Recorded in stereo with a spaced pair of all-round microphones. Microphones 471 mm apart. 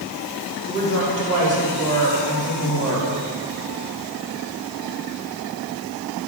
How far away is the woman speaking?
About 3.5 m.